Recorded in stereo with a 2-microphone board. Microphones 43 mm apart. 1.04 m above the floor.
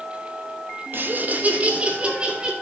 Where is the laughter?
55° right (ahead or behind), 1.4 m; by 2.5 s 20° right (ahead or behind), 3 m.